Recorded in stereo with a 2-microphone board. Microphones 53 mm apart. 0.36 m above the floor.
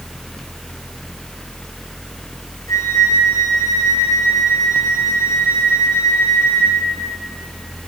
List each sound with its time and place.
2.7 s a flute: 65° left (ahead or behind), 6.5 m